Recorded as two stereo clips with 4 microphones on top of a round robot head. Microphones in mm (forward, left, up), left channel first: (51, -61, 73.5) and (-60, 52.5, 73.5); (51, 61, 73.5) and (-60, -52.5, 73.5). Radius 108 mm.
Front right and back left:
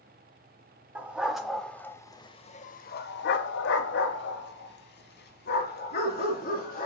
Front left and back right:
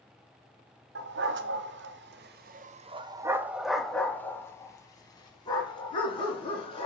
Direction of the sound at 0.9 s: 145° right.